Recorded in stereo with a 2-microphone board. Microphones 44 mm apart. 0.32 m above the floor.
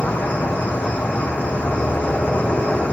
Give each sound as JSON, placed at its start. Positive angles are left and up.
{"t": 0.0, "sound": "an insect", "side_deg": 35, "distance_m": 3.5}